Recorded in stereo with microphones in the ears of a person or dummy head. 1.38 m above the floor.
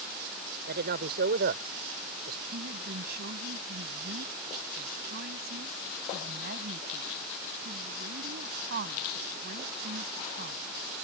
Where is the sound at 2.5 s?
50° right (ahead or behind).